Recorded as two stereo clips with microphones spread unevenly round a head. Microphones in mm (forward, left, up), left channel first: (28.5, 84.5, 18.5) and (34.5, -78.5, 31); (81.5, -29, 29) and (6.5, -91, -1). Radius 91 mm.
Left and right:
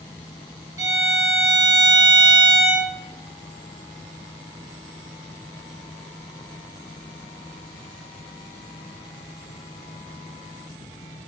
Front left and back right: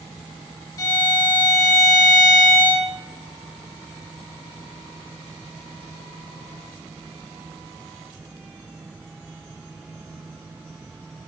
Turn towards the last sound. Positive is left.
turn(degrees=-20)